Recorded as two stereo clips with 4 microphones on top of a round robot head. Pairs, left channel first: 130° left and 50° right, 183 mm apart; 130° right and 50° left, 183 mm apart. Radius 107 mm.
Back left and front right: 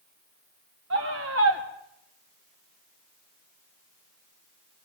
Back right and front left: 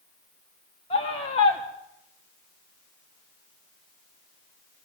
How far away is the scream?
About 3.5 m.